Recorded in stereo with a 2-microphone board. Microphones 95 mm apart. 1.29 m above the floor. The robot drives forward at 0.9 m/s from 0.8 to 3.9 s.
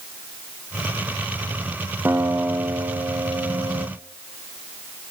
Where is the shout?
I don't hear a shout.